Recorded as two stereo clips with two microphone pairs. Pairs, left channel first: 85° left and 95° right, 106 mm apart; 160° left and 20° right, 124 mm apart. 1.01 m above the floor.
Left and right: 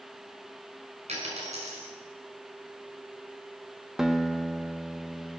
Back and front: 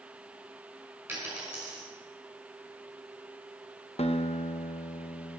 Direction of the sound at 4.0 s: 175° right.